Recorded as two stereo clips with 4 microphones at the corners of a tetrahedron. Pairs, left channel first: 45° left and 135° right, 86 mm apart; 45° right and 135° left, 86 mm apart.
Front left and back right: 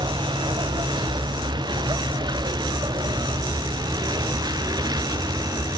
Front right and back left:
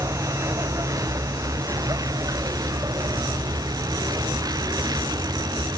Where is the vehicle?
170° right; by 5.8 s straight behind.